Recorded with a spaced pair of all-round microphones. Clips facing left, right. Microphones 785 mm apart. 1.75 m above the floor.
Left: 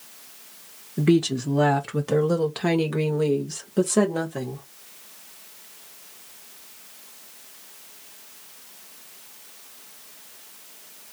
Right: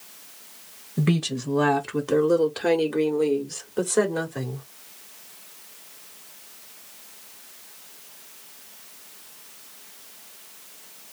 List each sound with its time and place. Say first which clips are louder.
1.0 s a woman speaking: left 6 dB; 25° right (ahead or behind), 0.6 m; by 4.6 s 55° left (ahead or behind), 1.9 m